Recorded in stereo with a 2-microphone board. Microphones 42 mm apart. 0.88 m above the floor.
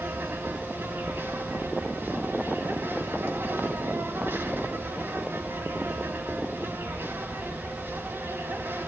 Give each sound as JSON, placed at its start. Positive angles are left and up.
{"t": 0.0, "sound": "an insect", "side_deg": -65, "distance_m": 2.5}